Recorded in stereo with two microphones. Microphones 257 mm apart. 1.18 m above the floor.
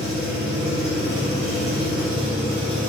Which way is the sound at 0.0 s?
Centre (ahead or behind).